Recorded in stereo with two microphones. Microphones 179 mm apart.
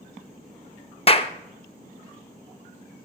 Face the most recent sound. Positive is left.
turn(degrees=35)  # may be behind; listen again after turning